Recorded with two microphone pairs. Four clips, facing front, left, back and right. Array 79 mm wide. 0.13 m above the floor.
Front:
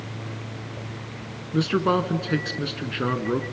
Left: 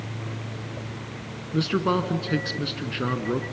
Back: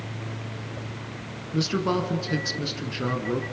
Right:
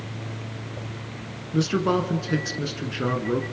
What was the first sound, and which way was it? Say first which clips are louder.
A man speaking: right 1 dB, front 3 dB; 5° left.